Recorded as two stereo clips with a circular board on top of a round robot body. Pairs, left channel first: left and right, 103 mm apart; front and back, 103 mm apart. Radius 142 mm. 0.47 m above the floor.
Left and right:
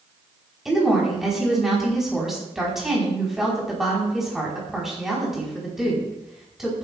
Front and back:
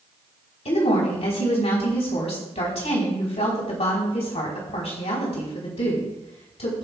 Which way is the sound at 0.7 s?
5° right.